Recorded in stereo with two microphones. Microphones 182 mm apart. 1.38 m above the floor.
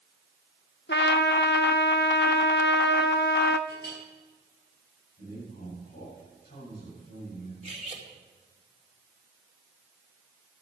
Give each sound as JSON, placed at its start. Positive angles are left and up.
{"t": 0.9, "sound": "a trumpet", "side_deg": 70, "distance_m": 0.8}
{"t": 3.7, "sound": "a clink", "side_deg": 60, "distance_m": 6.5}
{"t": 5.2, "sound": "a man speaking", "side_deg": 65, "distance_m": 7.5}
{"t": 7.6, "sound": "cutlery clinking", "side_deg": -40, "distance_m": 2.0}